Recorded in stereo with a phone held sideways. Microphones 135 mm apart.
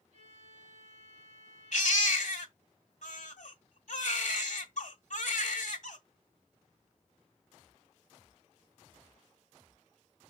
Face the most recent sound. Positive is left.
turn(degrees=65)  # may be behind; listen again after turning